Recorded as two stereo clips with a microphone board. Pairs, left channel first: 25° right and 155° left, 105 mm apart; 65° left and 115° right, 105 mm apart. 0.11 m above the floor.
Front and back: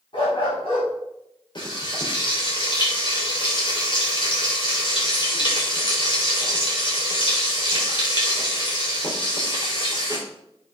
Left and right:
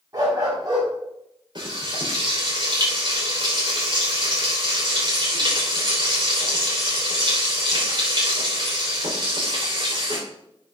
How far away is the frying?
About 6 m.